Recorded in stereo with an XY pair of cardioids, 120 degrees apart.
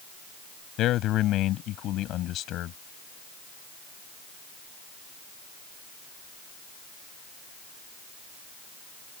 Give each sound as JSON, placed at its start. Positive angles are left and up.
{"t": 0.8, "sound": "a man speaking", "azimuth_deg": 70}